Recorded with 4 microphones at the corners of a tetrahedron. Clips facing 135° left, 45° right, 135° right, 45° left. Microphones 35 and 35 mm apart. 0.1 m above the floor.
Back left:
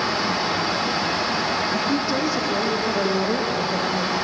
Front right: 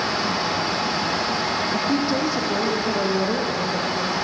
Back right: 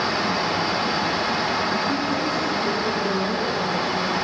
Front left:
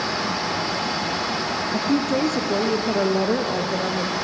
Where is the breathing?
I don't hear breathing.